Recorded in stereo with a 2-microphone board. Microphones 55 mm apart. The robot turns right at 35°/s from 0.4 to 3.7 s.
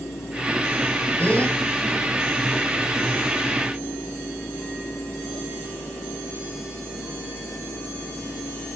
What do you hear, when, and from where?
1.2 s a gasp: 30° left (ahead or behind), 3.5 m; by 1.6 s 15° left (ahead or behind), 3.5 m